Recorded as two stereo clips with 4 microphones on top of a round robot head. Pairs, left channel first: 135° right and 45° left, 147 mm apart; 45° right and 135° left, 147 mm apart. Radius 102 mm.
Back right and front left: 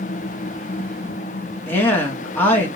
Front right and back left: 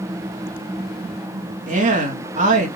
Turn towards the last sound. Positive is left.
turn(degrees=150)